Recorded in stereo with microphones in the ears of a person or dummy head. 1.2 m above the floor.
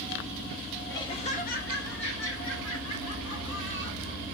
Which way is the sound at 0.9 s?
15° left (ahead or behind).